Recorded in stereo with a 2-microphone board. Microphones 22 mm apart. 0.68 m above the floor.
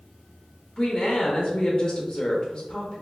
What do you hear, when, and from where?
0.8 s a woman speaking: 30° left (ahead or behind), 0.8 m